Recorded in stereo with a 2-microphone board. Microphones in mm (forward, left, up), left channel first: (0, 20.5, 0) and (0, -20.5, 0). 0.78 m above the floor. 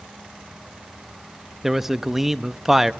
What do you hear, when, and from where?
1.6 s a man speaking: 10° right (ahead or behind), 0.5 m